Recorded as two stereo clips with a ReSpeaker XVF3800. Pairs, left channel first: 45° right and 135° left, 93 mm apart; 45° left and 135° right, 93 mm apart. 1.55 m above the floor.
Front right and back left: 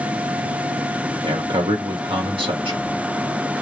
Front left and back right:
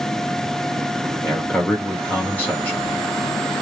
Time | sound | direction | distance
1.2 | a man speaking | 120° left | 2 m